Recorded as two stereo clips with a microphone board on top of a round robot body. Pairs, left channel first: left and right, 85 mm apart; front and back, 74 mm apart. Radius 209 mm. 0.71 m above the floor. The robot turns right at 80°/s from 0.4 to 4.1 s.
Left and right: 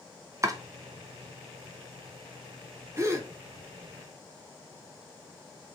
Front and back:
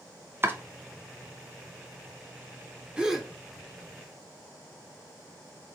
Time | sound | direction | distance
0.4 | chopping | 130° right | 0.9 m
3.0 | a gasp | 110° right | 1.1 m